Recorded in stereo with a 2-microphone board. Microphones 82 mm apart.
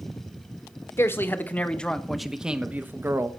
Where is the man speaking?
30° left (ahead or behind), 1.3 m; by 3.3 s 35° right (ahead or behind), 1.1 m.